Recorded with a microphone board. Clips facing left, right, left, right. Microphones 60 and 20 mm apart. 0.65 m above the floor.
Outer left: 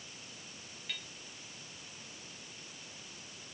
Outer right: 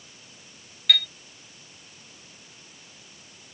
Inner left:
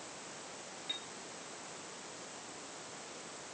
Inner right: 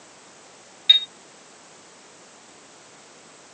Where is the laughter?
No laughter in this recording.